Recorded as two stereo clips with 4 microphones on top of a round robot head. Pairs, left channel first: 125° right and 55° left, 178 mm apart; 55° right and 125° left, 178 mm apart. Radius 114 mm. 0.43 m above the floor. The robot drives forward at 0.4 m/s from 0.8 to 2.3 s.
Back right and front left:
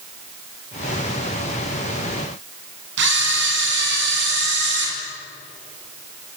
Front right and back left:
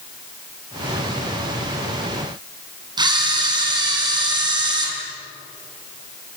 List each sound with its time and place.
3.0 s a camera shutter: 55° left, 5 m